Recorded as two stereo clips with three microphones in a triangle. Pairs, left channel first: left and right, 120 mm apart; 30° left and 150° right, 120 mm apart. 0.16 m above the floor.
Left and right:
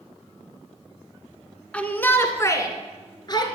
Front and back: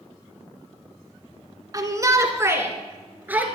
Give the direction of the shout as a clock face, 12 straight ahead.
6 o'clock.